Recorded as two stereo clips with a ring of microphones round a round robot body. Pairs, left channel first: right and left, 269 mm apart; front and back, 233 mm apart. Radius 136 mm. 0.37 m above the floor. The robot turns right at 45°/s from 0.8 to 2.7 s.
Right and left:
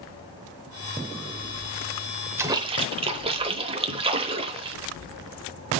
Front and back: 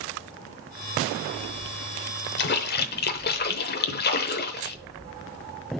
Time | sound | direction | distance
2.4 | a splash | 10° left | 0.9 m